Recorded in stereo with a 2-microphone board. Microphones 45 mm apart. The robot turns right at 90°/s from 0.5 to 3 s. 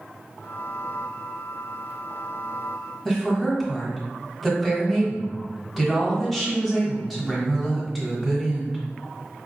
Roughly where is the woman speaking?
Centre.